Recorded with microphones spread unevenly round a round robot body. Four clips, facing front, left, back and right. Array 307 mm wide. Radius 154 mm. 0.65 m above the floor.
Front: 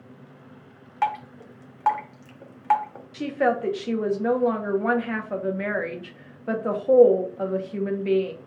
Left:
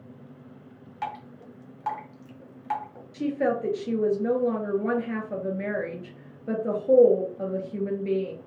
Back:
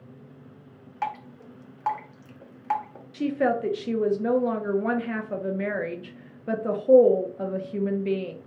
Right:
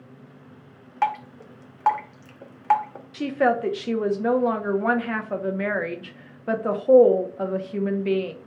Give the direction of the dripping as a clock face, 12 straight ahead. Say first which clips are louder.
Right 10 dB, front 6 dB; 2 o'clock.